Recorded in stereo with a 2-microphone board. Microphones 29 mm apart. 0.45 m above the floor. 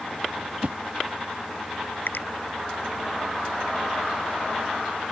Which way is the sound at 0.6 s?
55° right (ahead or behind).